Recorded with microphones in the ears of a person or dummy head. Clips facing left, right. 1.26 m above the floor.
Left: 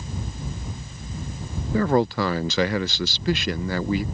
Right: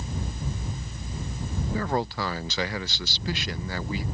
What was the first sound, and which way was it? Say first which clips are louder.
A man speaking: left 9 dB; 50° left (ahead or behind).